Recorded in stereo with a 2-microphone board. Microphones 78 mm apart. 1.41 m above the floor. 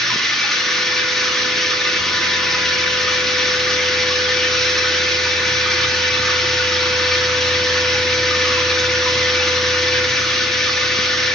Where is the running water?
5° left (ahead or behind), 1.8 m.